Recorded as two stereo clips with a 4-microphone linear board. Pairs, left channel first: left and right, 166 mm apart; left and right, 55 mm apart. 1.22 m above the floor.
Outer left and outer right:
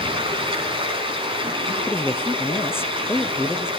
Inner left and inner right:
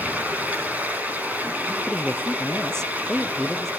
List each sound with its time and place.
0.0 s running water: 30° right (ahead or behind), 5.5 m
1.9 s a man speaking: 15° left (ahead or behind), 0.6 m